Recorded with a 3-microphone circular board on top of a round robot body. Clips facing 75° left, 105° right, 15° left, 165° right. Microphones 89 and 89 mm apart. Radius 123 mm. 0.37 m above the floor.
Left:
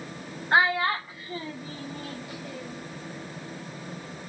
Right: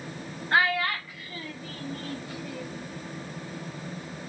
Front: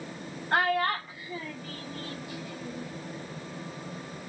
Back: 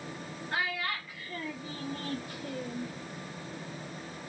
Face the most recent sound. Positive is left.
turn(degrees=160)